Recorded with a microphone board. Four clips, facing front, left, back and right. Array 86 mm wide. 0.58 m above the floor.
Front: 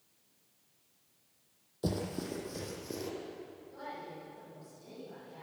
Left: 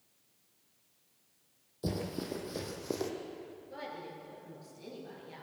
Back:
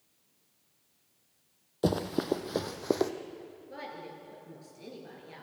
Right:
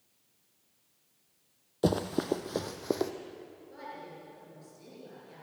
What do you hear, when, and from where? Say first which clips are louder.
1.8 s running footsteps: right 8 dB, back 7 dB; 125° right, 1.5 m; by 3.1 s 160° right, 1.9 m
3.7 s a woman speaking: left 1 dB, back 2 dB; 165° left, 9.5 m